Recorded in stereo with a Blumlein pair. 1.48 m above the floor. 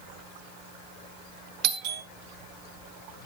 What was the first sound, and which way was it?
A doorbell, 40° right.